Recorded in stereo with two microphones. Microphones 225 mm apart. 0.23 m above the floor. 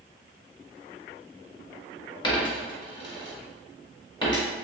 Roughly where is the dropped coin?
Left.